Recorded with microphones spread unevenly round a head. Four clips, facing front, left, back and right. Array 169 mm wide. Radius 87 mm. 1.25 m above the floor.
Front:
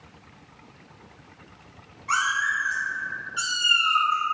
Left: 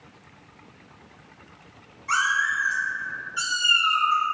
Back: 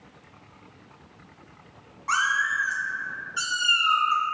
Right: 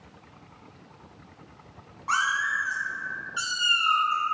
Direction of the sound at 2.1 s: 125° right.